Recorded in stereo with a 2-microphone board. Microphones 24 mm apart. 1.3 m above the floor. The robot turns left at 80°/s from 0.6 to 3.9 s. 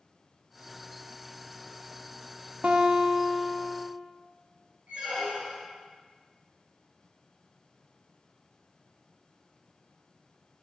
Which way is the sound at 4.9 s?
75° right (ahead or behind).